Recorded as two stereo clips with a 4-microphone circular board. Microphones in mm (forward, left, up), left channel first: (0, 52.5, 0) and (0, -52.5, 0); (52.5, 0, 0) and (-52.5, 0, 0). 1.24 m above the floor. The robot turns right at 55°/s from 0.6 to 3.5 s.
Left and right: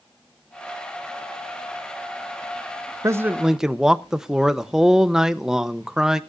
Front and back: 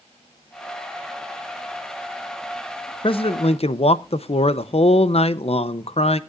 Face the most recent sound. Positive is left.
turn(degrees=-5)